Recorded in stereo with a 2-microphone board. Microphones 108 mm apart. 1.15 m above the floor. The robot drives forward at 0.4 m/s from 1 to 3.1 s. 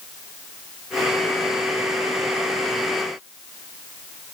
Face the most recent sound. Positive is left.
No sound to turn to.